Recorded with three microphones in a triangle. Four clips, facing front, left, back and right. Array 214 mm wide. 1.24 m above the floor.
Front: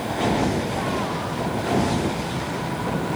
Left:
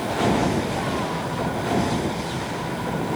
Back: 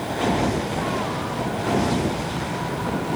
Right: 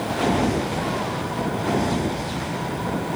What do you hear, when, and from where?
Only background noise.